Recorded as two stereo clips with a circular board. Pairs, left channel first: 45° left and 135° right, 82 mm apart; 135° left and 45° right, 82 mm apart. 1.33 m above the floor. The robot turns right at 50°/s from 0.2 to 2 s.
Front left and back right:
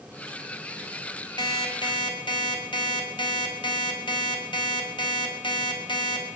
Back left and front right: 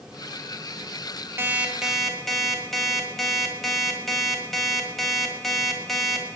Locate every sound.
1.4 s an alarm clock: 15° left, 4.5 m; by 6.3 s 50° left, 4.5 m